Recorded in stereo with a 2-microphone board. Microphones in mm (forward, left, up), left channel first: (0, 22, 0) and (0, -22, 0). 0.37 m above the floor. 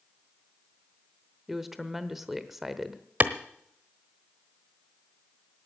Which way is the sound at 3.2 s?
40° right (ahead or behind).